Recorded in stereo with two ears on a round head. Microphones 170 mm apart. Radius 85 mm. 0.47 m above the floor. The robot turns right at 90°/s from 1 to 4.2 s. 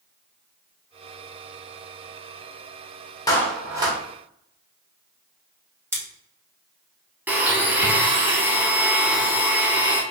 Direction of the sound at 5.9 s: 15° right (ahead or behind).